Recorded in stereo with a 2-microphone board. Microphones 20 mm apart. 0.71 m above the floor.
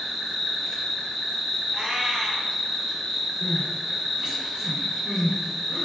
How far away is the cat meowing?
About 0.8 m.